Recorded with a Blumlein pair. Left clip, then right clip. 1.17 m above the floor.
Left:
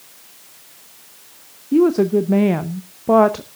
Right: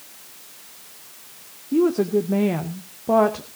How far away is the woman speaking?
About 0.7 m.